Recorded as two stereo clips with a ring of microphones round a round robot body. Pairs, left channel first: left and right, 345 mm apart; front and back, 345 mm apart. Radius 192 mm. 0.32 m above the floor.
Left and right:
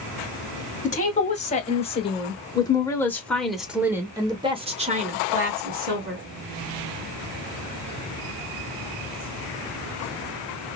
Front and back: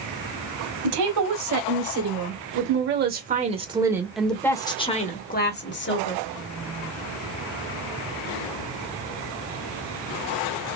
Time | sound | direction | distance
0.8 | a woman speaking | 155° left | 2 m